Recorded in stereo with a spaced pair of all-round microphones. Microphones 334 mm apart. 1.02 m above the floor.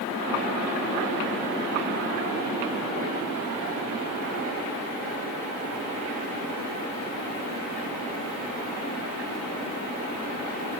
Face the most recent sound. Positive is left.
No sound to turn to.